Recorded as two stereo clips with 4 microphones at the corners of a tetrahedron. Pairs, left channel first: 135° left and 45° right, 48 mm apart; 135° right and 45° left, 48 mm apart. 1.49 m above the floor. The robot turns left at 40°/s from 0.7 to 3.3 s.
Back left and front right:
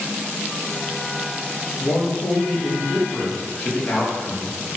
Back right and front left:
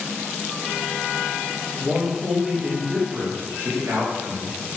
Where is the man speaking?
145° left, 1.9 m; by 4.6 s 85° left, 1.9 m.